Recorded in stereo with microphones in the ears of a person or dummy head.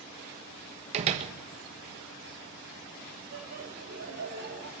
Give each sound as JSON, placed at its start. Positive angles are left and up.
{"t": 0.9, "sound": "a door slam", "side_deg": -35, "distance_m": 1.4}
{"t": 3.3, "sound": "laughter", "side_deg": -85, "distance_m": 7.5}